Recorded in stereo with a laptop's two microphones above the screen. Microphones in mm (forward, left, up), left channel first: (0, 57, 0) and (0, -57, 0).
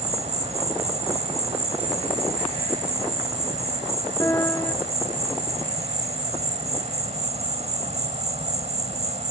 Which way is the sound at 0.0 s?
80° right.